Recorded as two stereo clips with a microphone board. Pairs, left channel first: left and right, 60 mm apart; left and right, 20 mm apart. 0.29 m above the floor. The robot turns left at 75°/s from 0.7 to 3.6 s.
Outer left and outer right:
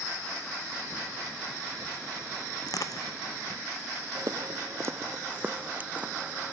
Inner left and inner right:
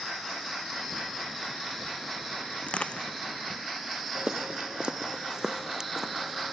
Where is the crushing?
80° left; by 3.1 s 65° left (ahead or behind).